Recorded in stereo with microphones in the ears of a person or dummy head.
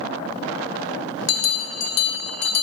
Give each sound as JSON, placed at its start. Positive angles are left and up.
{"t": 1.3, "sound": "a bell", "side_deg": 55, "distance_m": 1.0}